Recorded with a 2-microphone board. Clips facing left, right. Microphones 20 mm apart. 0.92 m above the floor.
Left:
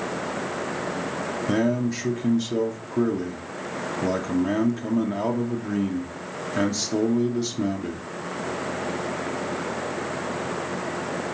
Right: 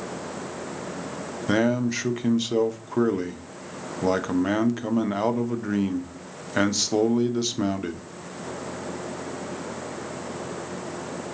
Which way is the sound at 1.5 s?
30° right (ahead or behind).